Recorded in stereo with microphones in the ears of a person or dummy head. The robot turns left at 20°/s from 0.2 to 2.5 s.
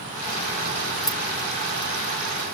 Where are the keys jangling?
5° left (ahead or behind); by 1.2 s centre (ahead or behind).